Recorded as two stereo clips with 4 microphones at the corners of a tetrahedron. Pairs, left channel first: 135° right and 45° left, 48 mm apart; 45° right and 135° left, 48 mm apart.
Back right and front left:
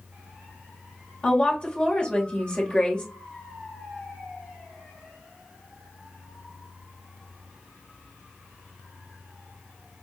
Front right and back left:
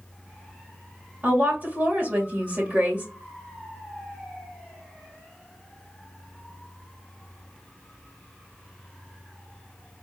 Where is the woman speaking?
165° left, 2.0 m.